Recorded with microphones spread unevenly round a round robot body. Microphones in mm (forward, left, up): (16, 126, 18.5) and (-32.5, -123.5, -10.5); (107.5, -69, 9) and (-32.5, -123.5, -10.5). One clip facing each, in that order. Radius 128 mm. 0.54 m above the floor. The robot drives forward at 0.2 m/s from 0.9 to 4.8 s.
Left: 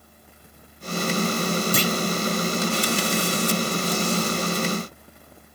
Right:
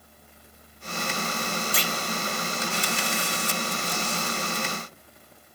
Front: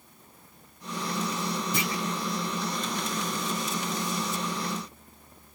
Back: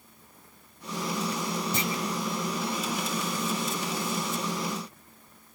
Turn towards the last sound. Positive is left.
turn(degrees=140)